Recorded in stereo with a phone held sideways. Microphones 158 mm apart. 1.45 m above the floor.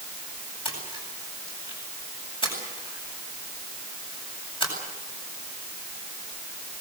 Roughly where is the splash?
Left.